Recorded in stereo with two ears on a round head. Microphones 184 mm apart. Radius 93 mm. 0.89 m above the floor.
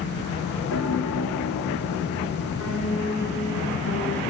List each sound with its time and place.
0.7 s a piano: 70° left (ahead or behind), 2.5 m